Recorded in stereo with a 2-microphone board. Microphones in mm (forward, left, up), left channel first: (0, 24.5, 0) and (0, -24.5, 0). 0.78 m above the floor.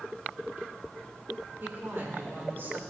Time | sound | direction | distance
1.6 | a woman speaking | 55° right (ahead or behind) | 3 m